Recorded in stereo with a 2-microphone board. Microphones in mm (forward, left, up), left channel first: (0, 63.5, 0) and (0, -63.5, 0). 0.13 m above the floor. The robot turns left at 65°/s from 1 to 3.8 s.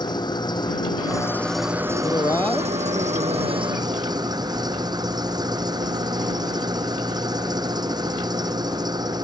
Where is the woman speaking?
50° left; by 3.7 s 65° right.